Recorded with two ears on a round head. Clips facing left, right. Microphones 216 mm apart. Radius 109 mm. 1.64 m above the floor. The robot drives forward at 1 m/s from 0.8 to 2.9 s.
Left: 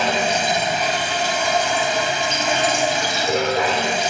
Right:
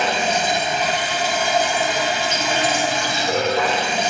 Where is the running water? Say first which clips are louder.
Even; 65° left (ahead or behind), 1.9 m; by 4.1 s 40° left (ahead or behind), 3 m.